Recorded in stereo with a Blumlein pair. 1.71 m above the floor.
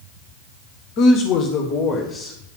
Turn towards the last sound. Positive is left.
turn(degrees=20)